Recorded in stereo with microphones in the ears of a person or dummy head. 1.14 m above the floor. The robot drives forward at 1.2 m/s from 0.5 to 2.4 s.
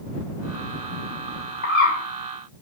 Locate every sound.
1.6 s a bird: 65° left (ahead or behind), 2 m; by 2.0 s 75° left (ahead or behind), 2 m